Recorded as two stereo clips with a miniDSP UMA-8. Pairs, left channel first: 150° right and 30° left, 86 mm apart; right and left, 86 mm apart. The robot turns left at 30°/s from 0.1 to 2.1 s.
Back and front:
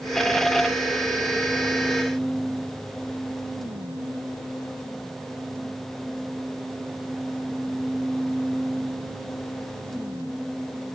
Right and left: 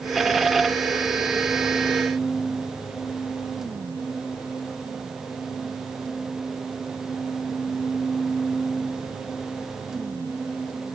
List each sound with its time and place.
Only background noise.